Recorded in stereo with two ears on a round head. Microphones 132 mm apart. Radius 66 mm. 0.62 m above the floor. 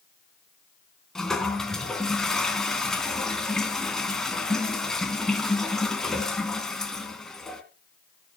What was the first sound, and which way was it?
A toilet flushing, 5° left (ahead or behind).